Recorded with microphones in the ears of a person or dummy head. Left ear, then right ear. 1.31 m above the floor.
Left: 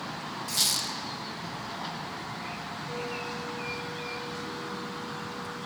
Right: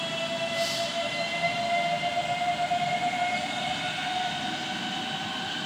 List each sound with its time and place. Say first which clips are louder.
0.5 s a squeak: even; 45° left (ahead or behind), 1.1 m